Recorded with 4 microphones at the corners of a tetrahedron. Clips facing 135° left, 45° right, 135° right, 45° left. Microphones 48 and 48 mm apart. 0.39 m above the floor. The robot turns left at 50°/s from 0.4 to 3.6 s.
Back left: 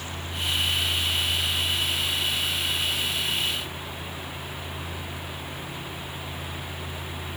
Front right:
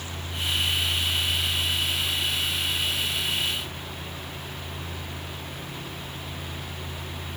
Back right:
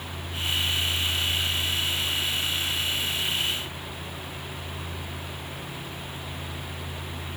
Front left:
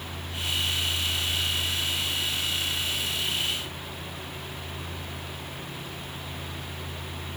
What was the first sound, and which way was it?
Only background noise.